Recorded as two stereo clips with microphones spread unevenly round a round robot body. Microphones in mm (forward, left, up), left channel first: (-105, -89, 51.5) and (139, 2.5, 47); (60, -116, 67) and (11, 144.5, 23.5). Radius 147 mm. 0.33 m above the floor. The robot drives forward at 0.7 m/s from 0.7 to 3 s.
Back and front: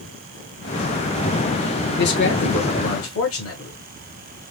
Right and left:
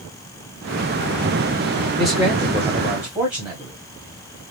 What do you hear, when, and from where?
2.0 s a man speaking: straight behind, 1.2 m